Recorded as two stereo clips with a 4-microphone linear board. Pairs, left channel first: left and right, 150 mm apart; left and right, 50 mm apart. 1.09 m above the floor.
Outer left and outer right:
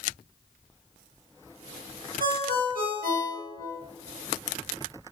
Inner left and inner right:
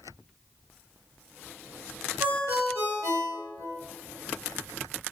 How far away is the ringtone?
About 1.3 m.